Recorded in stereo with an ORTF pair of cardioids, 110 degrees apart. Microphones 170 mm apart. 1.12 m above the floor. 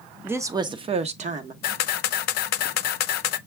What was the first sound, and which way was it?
A woman speaking, 10° right.